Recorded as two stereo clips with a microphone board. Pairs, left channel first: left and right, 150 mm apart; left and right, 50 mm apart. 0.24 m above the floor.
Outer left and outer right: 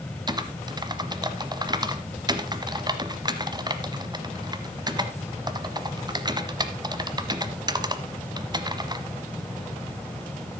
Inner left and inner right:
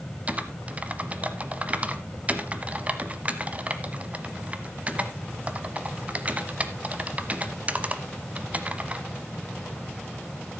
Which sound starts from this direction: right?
Typing on a keyboard, at 0.3 s.